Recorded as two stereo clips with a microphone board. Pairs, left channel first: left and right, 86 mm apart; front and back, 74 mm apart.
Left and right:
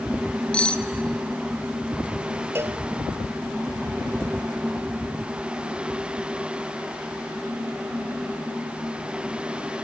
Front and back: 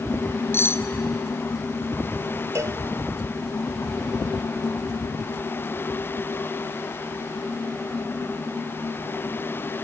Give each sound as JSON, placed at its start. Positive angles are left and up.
{"t": 0.5, "sound": "cutlery clinking", "azimuth_deg": 25, "distance_m": 0.9}
{"t": 2.5, "sound": "a cowbell", "azimuth_deg": -145, "distance_m": 0.7}